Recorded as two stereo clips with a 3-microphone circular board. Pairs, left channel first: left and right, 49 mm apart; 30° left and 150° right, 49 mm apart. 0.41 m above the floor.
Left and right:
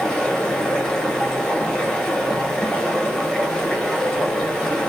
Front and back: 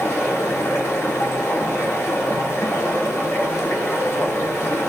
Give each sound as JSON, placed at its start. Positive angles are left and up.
{"t": 0.0, "sound": "running water", "azimuth_deg": 15, "distance_m": 0.7}